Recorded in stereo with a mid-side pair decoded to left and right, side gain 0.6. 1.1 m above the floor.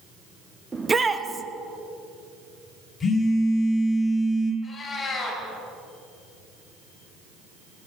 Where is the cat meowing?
30° left, 4 m.